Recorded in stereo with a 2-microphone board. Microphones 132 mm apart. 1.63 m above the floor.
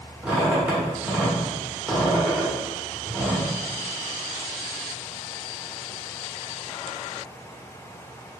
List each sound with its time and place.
0.2 s a squeak: 10° right (ahead or behind), 1.3 m